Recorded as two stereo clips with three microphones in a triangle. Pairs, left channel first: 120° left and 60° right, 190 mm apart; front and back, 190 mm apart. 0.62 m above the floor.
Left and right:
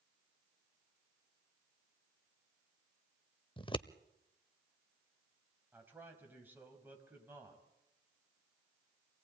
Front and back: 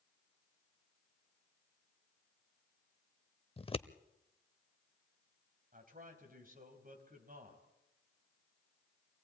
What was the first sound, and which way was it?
Scissors, 55° left.